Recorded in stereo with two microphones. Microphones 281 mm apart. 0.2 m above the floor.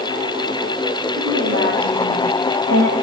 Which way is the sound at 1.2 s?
80° right.